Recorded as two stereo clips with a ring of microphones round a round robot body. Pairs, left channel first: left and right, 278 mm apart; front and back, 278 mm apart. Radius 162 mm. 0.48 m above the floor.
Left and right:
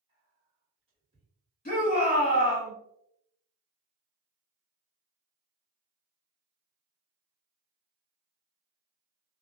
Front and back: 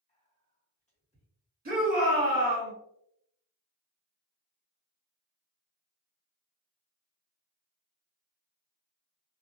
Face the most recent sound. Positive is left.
turn(degrees=140)